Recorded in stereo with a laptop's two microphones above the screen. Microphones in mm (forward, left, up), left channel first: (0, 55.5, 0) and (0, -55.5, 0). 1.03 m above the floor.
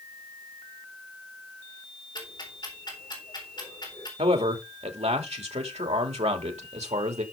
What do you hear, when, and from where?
2.1 s ticking: 40° left (ahead or behind), 4 m
4.2 s a man speaking: 75° right (ahead or behind), 2.5 m